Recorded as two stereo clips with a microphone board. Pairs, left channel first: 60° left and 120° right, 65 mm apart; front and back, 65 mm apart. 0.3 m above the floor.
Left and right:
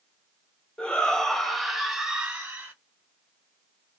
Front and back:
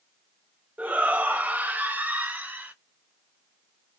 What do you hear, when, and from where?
0.8 s a shout: 125° left, 1.5 m; by 2.7 s 150° right, 1.3 m